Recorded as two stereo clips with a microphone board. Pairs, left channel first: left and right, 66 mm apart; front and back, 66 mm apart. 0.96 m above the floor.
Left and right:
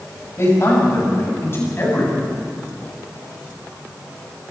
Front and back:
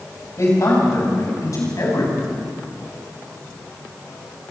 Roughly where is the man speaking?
Ahead left.